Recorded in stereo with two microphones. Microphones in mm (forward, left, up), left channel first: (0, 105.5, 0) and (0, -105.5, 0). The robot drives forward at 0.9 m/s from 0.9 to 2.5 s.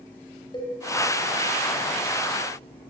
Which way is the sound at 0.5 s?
25° left (ahead or behind).